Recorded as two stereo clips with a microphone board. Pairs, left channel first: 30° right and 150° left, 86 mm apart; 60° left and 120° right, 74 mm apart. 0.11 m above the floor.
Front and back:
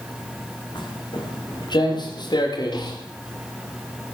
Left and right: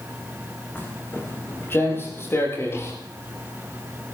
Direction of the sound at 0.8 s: 5° right.